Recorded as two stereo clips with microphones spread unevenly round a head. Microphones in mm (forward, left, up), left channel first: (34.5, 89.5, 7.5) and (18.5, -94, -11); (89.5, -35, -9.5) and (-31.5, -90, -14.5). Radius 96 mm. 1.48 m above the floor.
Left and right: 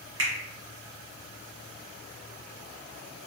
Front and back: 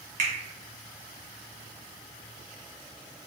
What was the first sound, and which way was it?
A finger snap, 130° right.